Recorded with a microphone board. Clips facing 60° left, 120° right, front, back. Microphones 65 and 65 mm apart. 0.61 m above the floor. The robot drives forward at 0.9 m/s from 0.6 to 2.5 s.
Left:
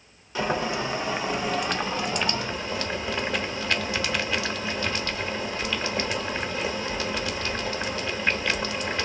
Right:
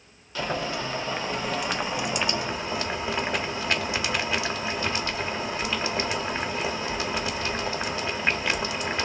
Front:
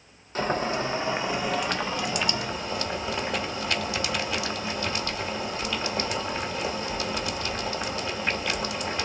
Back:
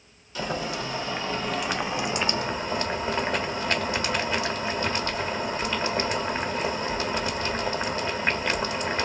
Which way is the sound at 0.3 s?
Straight ahead.